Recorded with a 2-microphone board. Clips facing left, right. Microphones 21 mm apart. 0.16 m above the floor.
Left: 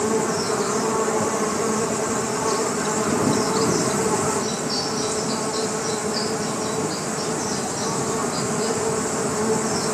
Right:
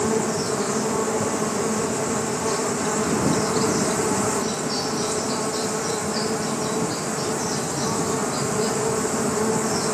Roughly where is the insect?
Centre.